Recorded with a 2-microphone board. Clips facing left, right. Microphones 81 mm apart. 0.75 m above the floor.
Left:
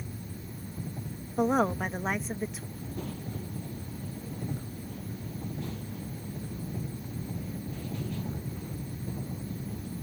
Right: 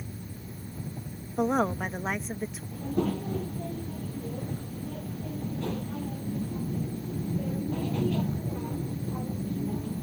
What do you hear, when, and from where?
1.4 s a woman speaking: centre (ahead or behind)
2.7 s a child speaking: 75° right (ahead or behind)